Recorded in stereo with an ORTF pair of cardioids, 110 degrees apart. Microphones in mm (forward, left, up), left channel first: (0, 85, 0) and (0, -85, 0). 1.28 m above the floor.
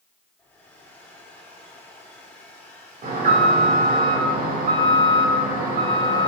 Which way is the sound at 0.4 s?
10° left.